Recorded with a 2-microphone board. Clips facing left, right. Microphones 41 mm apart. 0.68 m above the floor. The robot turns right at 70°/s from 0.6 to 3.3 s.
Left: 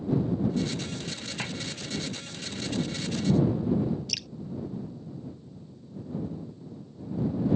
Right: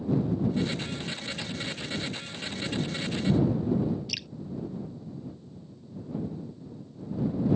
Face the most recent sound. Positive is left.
turn(degrees=-15)  # may be behind; listen again after turning